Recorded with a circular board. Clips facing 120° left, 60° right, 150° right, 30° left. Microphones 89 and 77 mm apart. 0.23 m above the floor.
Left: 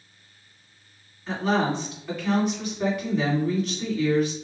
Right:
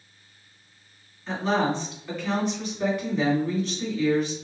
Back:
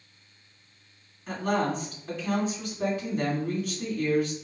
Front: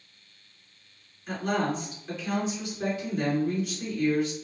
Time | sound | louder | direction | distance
1.3 | a woman speaking | even, back 1 dB | 155° right | 1.9 m